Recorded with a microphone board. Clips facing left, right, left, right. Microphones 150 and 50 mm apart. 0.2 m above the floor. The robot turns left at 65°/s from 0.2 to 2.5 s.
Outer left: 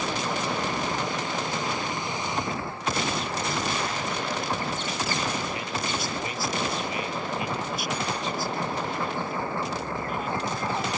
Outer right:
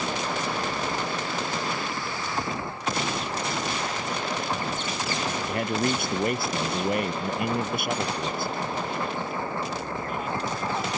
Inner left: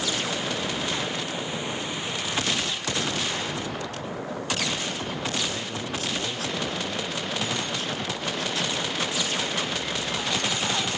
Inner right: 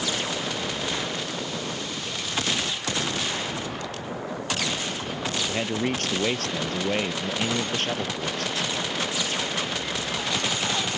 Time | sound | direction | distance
5.5 | a man speaking | 55° right (ahead or behind) | ?